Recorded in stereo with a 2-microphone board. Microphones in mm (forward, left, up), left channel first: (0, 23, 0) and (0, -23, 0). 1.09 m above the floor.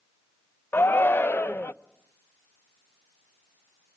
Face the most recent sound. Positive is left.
turn(degrees=50)  # may be behind; listen again after turning